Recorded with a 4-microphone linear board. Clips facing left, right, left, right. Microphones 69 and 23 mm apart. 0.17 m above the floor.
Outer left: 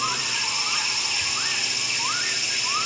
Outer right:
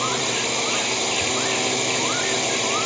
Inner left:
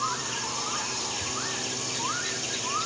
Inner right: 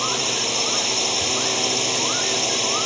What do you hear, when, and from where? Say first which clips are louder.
0.0 s a drone: outer right 4 dB, inner right 8 dB; 60° right (ahead or behind)